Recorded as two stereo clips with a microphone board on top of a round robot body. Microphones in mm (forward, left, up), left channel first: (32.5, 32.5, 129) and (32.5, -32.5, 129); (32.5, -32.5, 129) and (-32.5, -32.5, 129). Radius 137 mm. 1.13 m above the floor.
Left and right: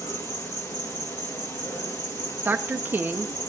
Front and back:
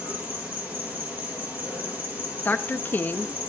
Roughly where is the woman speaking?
Ahead right.